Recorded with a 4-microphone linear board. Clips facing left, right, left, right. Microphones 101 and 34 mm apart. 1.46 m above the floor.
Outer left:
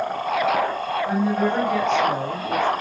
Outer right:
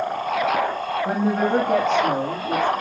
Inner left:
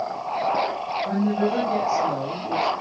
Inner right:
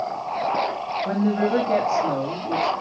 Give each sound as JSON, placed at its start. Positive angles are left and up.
{"t": 1.1, "sound": "a woman speaking", "side_deg": -45, "distance_m": 2.5}